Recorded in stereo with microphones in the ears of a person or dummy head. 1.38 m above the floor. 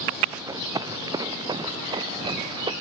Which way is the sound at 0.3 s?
20° right (ahead or behind).